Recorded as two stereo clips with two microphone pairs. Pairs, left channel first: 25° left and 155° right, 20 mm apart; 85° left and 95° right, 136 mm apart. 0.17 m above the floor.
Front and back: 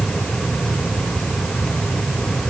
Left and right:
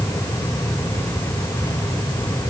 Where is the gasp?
I don't hear a gasp.